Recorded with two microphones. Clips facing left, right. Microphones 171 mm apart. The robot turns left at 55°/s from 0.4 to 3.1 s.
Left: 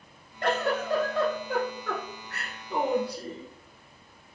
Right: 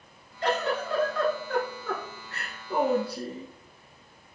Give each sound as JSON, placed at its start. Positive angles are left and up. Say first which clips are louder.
{"t": 0.4, "sound": "a giggle", "louder": "left 1 dB", "azimuth_deg": 75, "distance_m": 1.0}